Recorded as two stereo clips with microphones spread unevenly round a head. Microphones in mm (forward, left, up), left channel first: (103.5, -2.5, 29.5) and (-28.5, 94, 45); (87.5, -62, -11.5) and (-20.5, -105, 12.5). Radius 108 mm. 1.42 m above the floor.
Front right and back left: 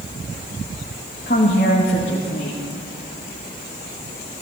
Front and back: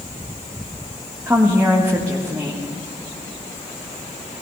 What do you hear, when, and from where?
1.3 s a woman speaking: 85° right, 1.5 m